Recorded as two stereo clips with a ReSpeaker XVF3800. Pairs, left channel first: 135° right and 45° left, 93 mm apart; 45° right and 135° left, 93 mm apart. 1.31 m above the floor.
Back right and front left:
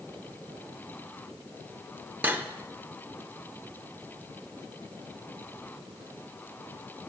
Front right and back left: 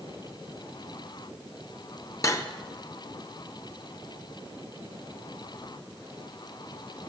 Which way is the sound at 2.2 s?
15° right.